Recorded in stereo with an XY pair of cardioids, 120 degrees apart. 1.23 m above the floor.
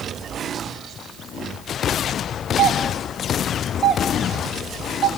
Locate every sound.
2.6 s a doorbell: 40° right, 5 m